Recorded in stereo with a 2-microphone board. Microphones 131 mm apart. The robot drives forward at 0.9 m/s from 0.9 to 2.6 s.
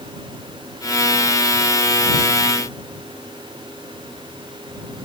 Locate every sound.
Only background noise.